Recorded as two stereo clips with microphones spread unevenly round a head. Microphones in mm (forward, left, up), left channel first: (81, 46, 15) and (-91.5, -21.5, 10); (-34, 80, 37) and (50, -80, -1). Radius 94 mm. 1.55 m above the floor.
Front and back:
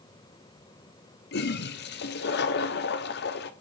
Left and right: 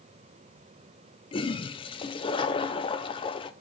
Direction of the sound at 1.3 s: 55° left.